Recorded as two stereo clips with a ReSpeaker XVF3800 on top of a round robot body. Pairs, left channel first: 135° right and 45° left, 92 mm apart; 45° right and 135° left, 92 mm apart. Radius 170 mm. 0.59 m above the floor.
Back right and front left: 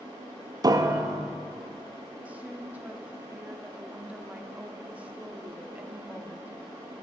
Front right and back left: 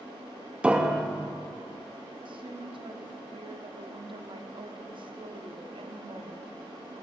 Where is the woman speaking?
120° left, 1.9 m.